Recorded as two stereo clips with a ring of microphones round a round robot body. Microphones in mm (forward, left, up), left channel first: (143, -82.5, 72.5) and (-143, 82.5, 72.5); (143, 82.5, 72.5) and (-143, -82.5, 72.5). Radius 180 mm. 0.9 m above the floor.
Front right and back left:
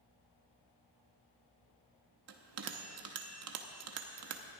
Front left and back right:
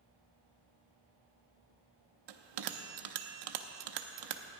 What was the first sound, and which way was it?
A bell, 165° right.